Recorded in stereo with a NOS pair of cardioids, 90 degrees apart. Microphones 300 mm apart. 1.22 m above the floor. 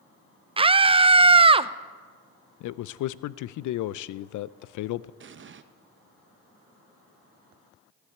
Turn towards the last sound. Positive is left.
turn(degrees=-40)